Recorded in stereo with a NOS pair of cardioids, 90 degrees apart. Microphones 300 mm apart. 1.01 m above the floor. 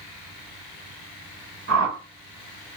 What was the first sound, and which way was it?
A whoosh, 55° right.